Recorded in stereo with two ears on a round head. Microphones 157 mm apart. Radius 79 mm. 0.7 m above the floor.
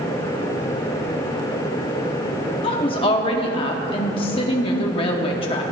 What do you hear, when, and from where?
2.6 s a woman speaking: 30° left (ahead or behind), 1.0 m